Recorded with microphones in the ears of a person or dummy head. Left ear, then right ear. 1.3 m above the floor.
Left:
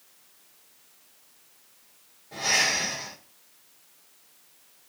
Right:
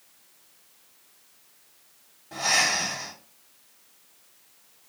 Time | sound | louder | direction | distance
2.3 | breathing | right 1 dB | 40° right (ahead or behind) | 1.6 m